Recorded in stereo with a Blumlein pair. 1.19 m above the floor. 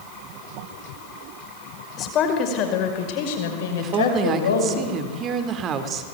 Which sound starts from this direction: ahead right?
A woman speaking, at 3.8 s.